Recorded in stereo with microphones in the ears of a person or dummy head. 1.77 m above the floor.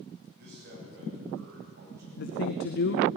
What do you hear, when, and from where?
0.4 s a man speaking: 65° right (ahead or behind), 10 m
2.2 s a woman speaking: 50° left (ahead or behind), 0.9 m